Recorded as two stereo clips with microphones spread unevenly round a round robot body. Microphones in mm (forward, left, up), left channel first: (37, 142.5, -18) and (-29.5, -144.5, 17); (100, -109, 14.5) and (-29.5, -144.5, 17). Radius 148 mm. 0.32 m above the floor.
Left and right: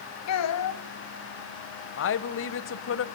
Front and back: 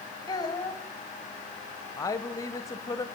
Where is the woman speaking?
75° left, 1.2 m.